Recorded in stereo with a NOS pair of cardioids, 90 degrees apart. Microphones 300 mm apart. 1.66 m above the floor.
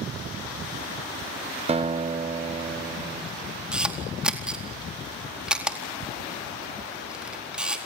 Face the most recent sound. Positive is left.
turn(degrees=-5)